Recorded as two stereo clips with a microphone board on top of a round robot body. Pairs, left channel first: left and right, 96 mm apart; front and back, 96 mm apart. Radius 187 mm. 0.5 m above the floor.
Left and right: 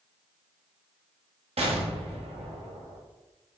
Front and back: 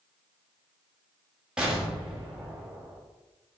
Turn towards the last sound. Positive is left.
turn(degrees=-100)